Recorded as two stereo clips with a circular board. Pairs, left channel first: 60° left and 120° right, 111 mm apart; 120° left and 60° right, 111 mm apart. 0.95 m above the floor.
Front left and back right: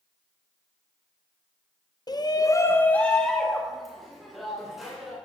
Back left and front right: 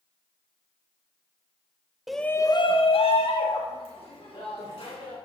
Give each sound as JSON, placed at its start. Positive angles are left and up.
{"t": 2.1, "sound": "a shout", "azimuth_deg": 25, "distance_m": 0.6}